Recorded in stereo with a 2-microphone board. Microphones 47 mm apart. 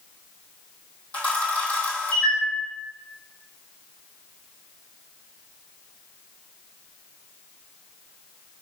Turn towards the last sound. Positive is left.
turn(degrees=25)  # may be behind; listen again after turning